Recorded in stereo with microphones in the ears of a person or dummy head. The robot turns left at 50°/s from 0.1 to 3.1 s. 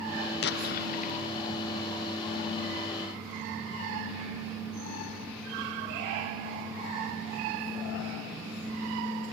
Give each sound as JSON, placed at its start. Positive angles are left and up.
{"t": 0.4, "sound": "an explosion", "azimuth_deg": 85, "distance_m": 0.7}